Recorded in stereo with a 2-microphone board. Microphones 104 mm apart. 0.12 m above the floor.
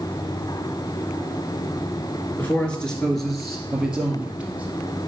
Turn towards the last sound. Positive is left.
turn(degrees=-15)  # may be behind; listen again after turning